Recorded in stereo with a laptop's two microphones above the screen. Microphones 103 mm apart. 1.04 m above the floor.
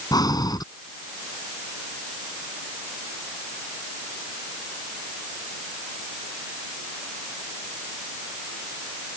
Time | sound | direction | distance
0.1 | breathing | 40° left (ahead or behind) | ?